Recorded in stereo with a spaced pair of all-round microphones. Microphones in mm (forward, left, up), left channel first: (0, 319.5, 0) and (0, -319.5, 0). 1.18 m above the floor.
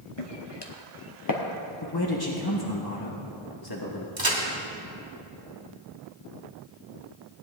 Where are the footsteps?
45° left (ahead or behind), 1.5 m; by 1.4 s 30° left (ahead or behind), 1.7 m.